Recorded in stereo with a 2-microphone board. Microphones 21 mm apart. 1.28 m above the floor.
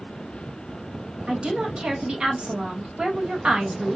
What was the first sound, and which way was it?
A woman speaking, 60° right (ahead or behind).